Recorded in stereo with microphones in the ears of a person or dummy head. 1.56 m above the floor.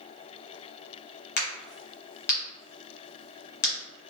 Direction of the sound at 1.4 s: 50° left (ahead or behind).